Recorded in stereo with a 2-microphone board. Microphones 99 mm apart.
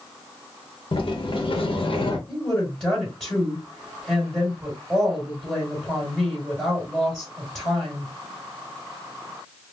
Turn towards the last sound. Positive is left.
turn(degrees=5)  # may be behind; listen again after turning